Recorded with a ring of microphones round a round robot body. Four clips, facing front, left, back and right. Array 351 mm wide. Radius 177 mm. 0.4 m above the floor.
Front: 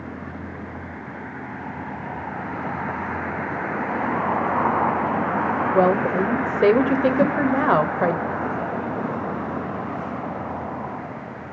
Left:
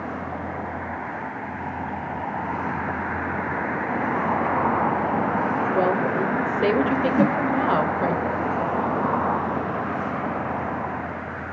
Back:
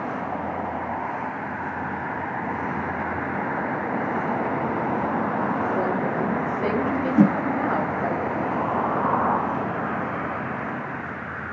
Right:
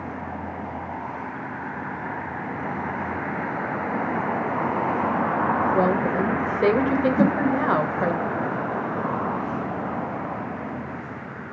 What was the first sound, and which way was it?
A woman speaking, 10° right.